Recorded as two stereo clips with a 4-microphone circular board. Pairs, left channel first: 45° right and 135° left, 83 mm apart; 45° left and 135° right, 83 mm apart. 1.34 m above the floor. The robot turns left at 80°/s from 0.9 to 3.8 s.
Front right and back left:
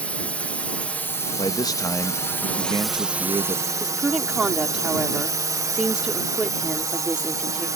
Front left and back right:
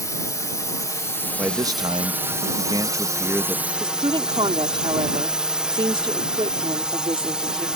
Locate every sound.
0.0 s a drone: 20° left; by 7.8 s 150° left
1.4 s a man speaking: 65° right; by 3.7 s 110° left
3.8 s a woman speaking: 145° right